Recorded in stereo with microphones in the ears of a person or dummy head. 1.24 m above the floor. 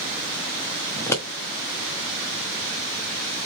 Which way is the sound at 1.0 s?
15° left (ahead or behind).